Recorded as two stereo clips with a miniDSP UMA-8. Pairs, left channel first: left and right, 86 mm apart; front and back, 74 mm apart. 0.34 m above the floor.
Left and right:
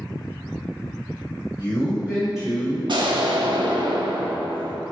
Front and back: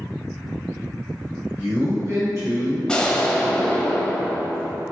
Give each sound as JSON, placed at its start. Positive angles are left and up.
{"t": 1.6, "sound": "a man speaking", "azimuth_deg": -150, "distance_m": 1.6}
{"t": 2.9, "sound": "an explosion", "azimuth_deg": -80, "distance_m": 0.5}